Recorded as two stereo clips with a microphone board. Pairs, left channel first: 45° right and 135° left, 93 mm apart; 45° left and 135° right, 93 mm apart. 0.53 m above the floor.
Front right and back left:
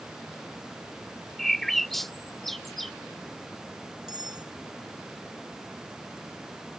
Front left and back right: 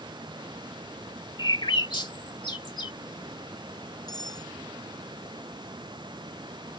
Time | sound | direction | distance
1.4 | a bird | 40° left | ?
4.1 | cutlery clinking | 90° left | ?